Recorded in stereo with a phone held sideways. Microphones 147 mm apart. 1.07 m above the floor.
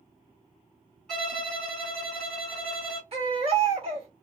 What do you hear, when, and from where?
1.1 s a violin: 5° left (ahead or behind), 1.0 m
3.1 s a baby crying: 50° right (ahead or behind), 1.5 m